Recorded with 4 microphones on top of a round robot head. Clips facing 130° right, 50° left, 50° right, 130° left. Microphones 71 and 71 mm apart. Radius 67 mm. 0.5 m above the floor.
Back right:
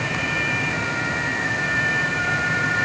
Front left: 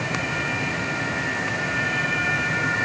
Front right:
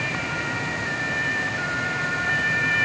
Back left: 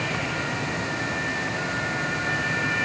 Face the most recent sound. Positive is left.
No sound to turn to.